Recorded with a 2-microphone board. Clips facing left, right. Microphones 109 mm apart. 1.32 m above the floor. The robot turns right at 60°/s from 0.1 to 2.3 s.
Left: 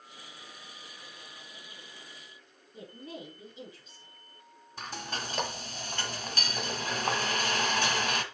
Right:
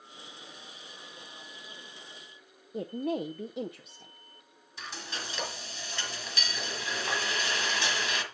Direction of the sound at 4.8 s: 45° left (ahead or behind).